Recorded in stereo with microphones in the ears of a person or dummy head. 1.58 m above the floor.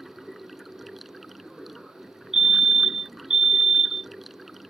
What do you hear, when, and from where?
0.0 s running water: centre (ahead or behind)
2.3 s a fire alarm: centre (ahead or behind)